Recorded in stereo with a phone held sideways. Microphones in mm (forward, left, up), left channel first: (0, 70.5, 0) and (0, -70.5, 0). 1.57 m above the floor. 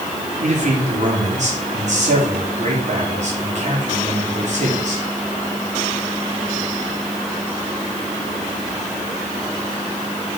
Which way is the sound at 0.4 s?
55° right (ahead or behind).